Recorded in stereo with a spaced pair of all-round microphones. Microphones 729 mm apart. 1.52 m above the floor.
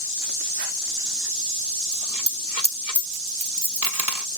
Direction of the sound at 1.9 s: 55° right (ahead or behind).